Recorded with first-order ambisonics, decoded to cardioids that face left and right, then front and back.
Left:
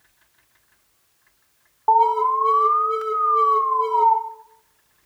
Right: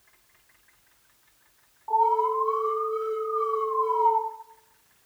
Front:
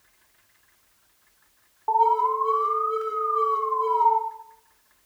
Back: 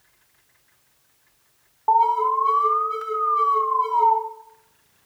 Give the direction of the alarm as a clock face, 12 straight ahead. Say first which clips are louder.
Left 6 dB, back 2 dB; 8 o'clock.